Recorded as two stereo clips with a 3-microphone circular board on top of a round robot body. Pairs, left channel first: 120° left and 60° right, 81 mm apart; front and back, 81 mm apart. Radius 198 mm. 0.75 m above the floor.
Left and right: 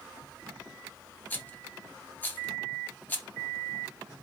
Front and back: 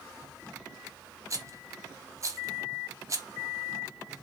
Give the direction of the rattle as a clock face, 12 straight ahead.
6 o'clock.